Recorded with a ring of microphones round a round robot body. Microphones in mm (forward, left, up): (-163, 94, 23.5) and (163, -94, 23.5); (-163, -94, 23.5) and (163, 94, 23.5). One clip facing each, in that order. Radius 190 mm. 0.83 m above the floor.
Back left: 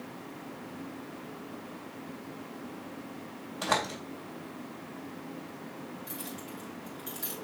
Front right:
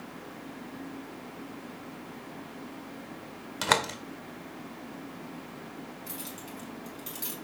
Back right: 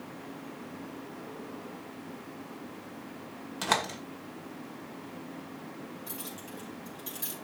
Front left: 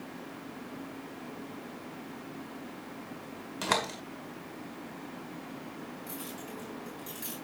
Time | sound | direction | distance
3.6 | a door slam | 65° right | 2 m
6.1 | keys jangling | 75° right | 5.5 m